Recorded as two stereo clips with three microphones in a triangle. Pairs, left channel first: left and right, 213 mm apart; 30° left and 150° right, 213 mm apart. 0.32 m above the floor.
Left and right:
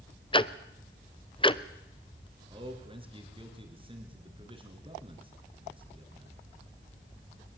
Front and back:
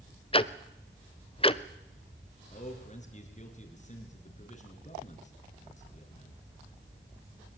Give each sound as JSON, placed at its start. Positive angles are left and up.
{"t": 0.3, "sound": "ticking", "azimuth_deg": 55, "distance_m": 0.7}
{"t": 2.5, "sound": "a man speaking", "azimuth_deg": -25, "distance_m": 5.0}